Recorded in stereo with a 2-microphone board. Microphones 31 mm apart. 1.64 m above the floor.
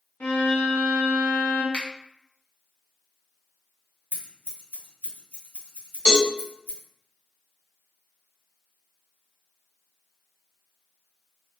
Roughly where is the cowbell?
Left.